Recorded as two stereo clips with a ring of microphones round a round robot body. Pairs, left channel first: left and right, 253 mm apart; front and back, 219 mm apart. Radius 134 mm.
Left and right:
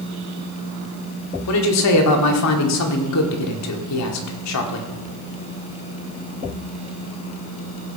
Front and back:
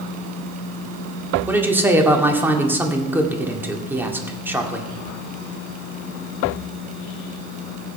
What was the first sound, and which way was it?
A woman speaking, 100° left.